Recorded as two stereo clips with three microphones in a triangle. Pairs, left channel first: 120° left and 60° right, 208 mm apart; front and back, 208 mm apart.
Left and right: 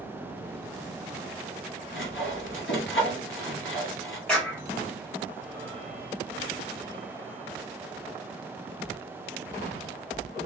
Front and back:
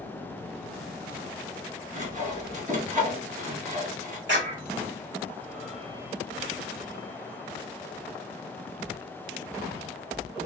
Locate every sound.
1.9 s sawing: 130° left, 1.3 m
4.3 s a clap: 155° right, 2 m